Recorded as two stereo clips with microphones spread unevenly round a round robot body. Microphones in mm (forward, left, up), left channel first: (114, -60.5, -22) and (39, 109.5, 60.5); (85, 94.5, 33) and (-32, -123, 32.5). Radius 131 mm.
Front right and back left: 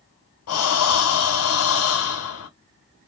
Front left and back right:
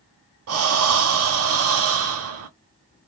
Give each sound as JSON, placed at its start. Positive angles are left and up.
{"t": 0.5, "sound": "breathing", "azimuth_deg": -80, "distance_m": 0.8}